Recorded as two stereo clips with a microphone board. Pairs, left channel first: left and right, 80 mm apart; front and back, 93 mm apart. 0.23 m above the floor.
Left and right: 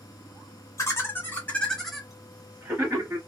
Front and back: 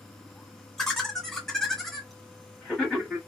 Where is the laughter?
80° left, 1.2 m; by 3.2 s 90° right, 1.2 m.